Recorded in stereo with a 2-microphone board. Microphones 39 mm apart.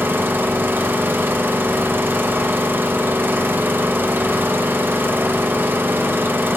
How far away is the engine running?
About 0.9 m.